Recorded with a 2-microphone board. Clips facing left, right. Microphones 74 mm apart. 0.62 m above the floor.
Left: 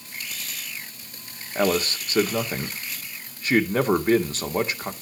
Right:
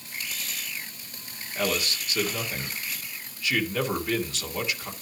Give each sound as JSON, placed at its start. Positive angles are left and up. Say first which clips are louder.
{"t": 1.6, "sound": "a man speaking", "louder": "left 6 dB", "side_deg": 45, "distance_m": 1.7}